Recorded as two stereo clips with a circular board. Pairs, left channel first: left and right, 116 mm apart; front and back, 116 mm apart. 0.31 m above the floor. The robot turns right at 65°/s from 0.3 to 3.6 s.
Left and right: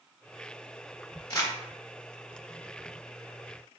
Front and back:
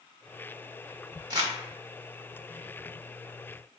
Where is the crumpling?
135° left, 0.7 m; by 1.5 s 150° left, 0.7 m.